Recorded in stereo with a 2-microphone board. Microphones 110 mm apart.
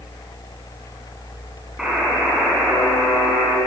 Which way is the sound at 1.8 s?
5° right (ahead or behind).